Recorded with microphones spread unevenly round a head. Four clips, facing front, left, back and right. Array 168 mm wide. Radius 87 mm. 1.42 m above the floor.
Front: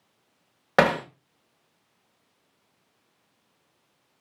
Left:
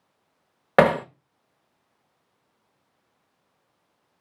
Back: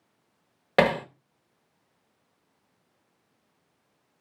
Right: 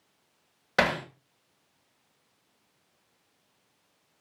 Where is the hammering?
85° left, 1.2 m.